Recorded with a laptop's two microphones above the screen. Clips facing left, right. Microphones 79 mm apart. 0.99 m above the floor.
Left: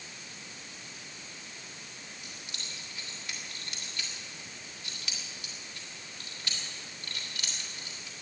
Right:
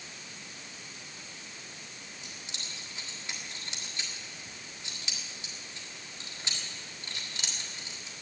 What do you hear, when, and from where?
2.2 s keys jangling: 25° right (ahead or behind), 1.7 m